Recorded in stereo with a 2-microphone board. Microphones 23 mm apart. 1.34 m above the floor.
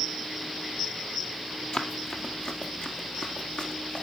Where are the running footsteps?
50° left (ahead or behind), 2.0 m; by 4.0 s 65° left (ahead or behind), 3.5 m.